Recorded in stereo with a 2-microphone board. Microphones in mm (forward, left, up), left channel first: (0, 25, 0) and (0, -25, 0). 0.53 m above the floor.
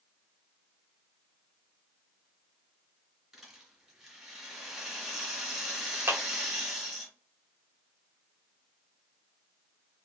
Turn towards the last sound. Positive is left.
turn(degrees=-45)  # may be behind; listen again after turning